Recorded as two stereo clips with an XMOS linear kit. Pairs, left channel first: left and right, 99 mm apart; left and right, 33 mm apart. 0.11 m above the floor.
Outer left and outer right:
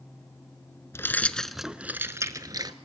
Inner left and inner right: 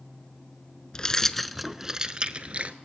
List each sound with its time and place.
0.9 s keys jangling: 25° left (ahead or behind), 0.8 m; by 2.8 s 45° right (ahead or behind), 1.0 m